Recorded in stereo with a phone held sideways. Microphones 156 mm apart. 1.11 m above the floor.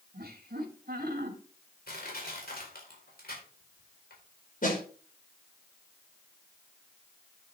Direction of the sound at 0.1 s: 75° right (ahead or behind).